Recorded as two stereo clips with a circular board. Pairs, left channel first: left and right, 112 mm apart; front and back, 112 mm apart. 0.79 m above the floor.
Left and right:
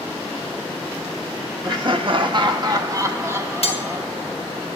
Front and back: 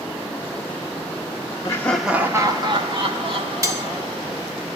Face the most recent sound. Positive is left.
turn(degrees=120)